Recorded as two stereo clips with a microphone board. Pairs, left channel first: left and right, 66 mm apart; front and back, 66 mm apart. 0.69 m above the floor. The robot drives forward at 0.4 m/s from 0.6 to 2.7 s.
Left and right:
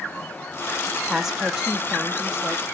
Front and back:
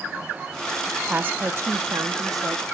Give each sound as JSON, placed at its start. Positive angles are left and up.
{"t": 1.1, "sound": "a woman speaking", "azimuth_deg": -150, "distance_m": 0.5}